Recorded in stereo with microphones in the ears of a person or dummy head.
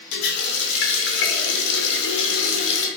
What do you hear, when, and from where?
0.1 s a running tap: 65° left (ahead or behind), 0.7 m